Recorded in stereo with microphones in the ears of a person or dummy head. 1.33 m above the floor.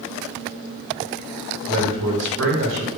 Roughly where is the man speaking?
Right.